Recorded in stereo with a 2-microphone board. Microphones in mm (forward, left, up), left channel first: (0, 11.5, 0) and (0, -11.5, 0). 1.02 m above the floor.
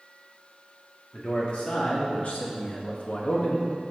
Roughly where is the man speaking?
Left.